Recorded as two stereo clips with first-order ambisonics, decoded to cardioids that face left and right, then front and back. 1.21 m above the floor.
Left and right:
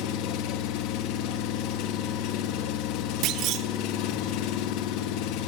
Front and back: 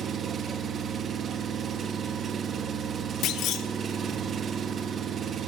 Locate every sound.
0.0 s an engine running: 115° left, 1.5 m
3.2 s a clunk: 45° right, 1.1 m